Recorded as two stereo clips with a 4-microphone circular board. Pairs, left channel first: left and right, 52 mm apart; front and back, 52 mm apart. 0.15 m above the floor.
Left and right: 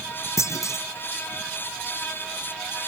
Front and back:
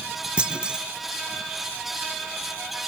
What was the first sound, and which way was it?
A clunk, 105° left.